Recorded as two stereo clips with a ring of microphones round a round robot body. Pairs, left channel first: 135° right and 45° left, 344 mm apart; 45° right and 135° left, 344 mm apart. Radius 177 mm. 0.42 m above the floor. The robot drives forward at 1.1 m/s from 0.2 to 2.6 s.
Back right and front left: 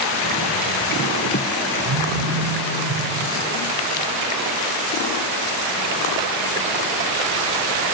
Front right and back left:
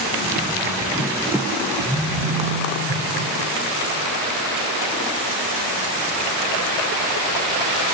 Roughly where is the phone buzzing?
Ahead left.